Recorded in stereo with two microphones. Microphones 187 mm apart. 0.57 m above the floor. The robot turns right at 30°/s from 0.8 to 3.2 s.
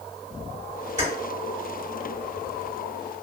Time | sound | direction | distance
1.0 | keys jangling | 40° right (ahead or behind) | 1.5 m